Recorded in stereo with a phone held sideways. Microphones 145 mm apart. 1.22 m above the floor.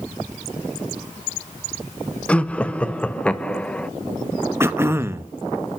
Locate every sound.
2.3 s laughter: 10° left (ahead or behind), 0.8 m
4.6 s throat clearing: 15° right (ahead or behind), 0.6 m